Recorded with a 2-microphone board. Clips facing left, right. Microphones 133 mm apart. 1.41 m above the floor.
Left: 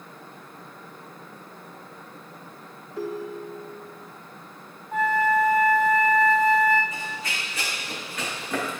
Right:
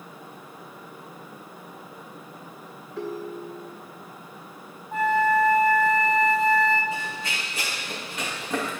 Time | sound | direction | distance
3.0 | a ringtone | 5° left (ahead or behind) | 1.6 m
4.9 | a flute | 30° right (ahead or behind) | 1.9 m
6.9 | running footsteps | 30° right (ahead or behind) | 5 m